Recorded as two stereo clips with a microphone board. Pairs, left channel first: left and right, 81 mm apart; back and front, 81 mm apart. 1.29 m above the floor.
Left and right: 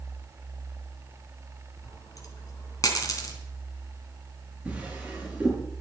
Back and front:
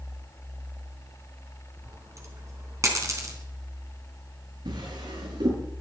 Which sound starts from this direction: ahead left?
A dropped coin, at 1.8 s.